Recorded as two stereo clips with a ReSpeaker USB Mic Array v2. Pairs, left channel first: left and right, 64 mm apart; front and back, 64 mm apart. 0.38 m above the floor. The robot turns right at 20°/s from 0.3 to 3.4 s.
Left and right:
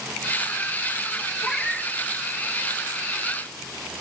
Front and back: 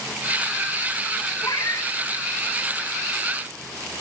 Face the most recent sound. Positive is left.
turn(degrees=45)